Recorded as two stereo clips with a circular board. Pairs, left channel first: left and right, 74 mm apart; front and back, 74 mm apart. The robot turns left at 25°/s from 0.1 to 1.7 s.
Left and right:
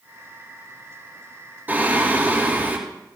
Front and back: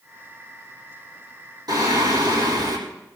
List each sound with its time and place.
1.7 s singing: 155° right, 5 m